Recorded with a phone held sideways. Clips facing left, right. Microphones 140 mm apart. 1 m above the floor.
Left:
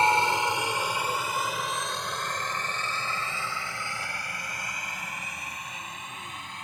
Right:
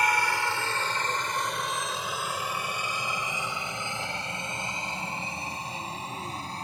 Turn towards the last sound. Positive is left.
turn(degrees=-35)  # may be behind; listen again after turning